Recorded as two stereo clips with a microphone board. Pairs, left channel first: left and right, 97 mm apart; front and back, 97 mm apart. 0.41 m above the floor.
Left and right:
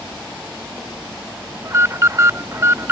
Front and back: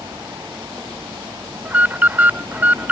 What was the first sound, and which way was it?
An alarm, 120° right.